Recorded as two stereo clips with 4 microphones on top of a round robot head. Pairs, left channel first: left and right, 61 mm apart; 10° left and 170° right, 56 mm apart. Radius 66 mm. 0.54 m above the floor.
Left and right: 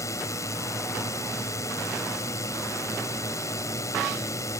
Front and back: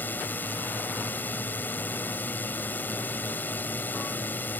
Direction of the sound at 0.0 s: 60° left.